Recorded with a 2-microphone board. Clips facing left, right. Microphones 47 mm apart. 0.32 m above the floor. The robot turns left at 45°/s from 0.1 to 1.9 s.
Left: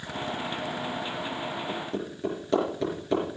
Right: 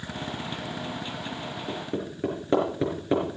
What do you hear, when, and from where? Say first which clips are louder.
1.7 s hammering: even; 35° right (ahead or behind), 5 m; by 3.2 s 25° right (ahead or behind), 5 m